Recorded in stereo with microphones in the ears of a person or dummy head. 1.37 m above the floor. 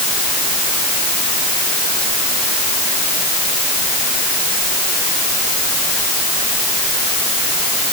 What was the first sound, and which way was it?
Only background noise.